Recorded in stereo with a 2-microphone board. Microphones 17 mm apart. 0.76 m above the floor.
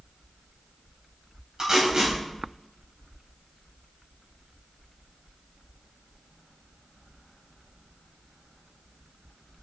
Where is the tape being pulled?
35° right (ahead or behind), 5 m.